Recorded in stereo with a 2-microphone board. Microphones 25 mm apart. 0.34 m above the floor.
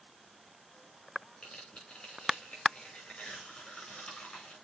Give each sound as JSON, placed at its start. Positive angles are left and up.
{"t": 1.4, "sound": "tearing paper", "side_deg": 50, "distance_m": 5.5}